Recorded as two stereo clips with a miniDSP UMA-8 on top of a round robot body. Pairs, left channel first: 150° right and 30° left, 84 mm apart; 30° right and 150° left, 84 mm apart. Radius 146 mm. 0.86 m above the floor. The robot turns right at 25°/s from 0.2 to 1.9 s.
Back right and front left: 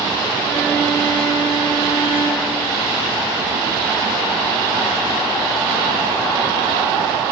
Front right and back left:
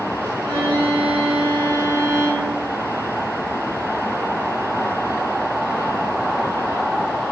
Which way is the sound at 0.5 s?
165° left.